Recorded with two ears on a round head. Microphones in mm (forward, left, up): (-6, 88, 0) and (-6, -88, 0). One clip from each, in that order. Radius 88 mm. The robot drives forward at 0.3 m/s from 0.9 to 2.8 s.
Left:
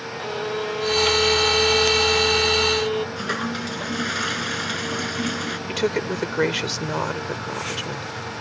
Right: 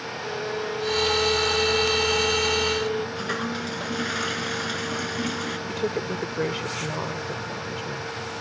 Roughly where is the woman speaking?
Left.